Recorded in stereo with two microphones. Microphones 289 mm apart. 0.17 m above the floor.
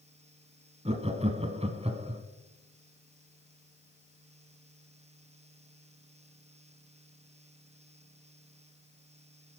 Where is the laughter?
20° right (ahead or behind), 1.0 m.